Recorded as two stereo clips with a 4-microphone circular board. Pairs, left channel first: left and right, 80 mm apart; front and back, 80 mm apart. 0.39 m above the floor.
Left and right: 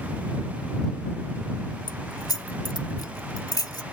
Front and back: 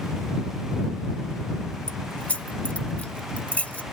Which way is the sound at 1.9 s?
70° left.